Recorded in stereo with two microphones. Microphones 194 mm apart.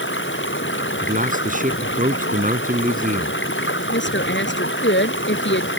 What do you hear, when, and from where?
0.0 s running water: 80° left
1.0 s a man speaking: 45° right (ahead or behind)
3.9 s a woman speaking: 75° left (ahead or behind)